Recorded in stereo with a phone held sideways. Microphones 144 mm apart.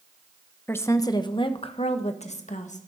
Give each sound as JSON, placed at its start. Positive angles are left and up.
{"t": 0.7, "sound": "a woman speaking", "side_deg": 15, "distance_m": 1.0}